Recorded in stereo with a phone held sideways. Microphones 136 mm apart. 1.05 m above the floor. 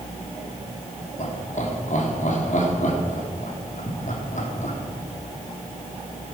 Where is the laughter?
65° left (ahead or behind), 3 m.